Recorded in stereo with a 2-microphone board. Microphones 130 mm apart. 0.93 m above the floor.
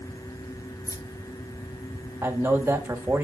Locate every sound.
0.9 s keys jangling: 25° left (ahead or behind), 0.8 m; by 2.8 s 60° left (ahead or behind), 2 m
2.2 s a man speaking: 15° right (ahead or behind), 1.5 m